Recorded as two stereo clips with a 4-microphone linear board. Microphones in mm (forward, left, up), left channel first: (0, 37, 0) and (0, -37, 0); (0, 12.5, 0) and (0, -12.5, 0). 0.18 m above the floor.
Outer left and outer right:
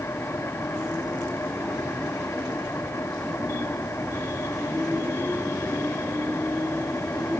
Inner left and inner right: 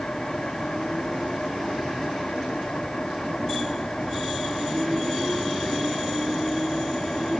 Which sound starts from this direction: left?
An engine running, at 0.0 s.